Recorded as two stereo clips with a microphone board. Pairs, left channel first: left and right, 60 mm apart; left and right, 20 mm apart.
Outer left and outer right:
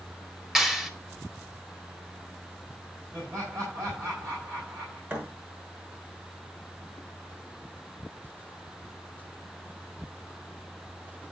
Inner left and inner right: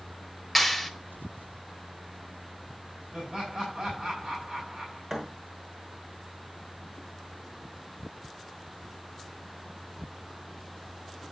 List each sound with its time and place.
0.6 s a clap: 10° right (ahead or behind), 1.8 m
3.1 s laughter: 60° right (ahead or behind), 7 m
5.1 s a thud: 40° right (ahead or behind), 6.5 m